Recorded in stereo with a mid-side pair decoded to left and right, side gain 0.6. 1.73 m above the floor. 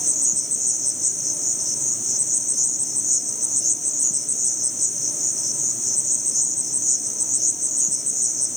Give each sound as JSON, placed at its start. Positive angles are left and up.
{"t": 0.0, "sound": "an insect", "azimuth_deg": 0, "distance_m": 1.3}